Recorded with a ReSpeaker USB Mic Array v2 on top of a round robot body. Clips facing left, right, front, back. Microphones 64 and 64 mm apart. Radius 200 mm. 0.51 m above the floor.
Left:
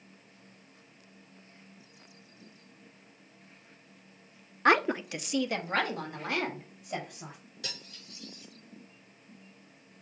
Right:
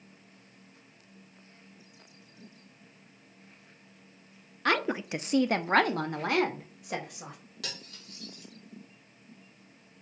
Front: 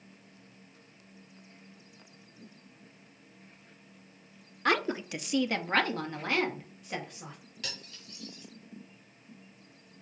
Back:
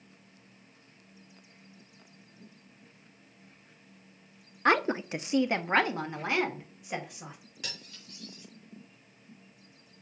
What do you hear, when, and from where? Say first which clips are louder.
4.7 s a woman speaking: left 4 dB, back 3 dB; 135° left, 0.7 m; by 7.4 s 100° right, 3 m
7.6 s cutlery clinking: right 1 dB, even; 105° right, 5 m